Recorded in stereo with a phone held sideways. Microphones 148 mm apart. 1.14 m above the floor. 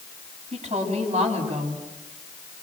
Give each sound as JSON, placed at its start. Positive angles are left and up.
{"t": 0.5, "sound": "a woman speaking", "side_deg": -45, "distance_m": 8.0}